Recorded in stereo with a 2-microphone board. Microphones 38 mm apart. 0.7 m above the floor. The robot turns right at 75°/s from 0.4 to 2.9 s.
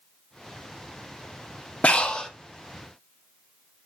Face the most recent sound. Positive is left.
turn(degrees=-160)